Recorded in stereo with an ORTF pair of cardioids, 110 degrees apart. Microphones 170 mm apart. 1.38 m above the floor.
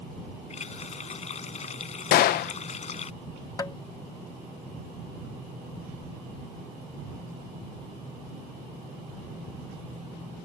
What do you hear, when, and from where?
0.5 s a running tap: 40° left
2.1 s a gunshot: 65° left
3.6 s tapping: 25° left